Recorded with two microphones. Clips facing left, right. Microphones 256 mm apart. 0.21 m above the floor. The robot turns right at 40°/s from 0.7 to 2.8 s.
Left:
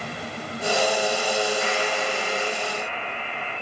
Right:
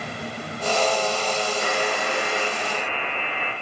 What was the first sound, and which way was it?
A buzzer, 130° right.